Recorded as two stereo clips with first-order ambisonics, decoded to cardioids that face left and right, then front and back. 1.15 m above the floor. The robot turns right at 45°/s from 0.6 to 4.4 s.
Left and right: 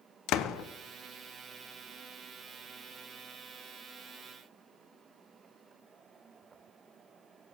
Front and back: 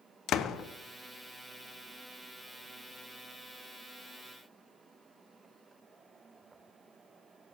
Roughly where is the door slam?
Ahead left.